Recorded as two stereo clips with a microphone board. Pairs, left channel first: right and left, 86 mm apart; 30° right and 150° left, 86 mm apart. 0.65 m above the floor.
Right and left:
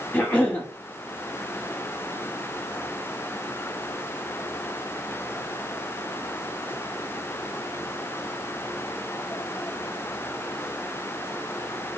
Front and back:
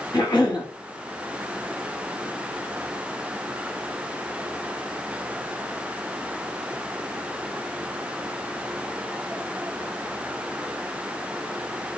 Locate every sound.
0.1 s a cough: 25° right, 0.9 m